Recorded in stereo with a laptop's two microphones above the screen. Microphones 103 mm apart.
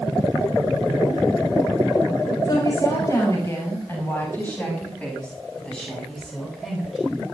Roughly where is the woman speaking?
Left.